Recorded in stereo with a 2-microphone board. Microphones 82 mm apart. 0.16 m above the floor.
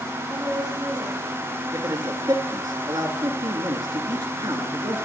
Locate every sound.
0.3 s a woman speaking: 15° right (ahead or behind), 4.5 m
1.7 s a man speaking: 55° right (ahead or behind), 1.8 m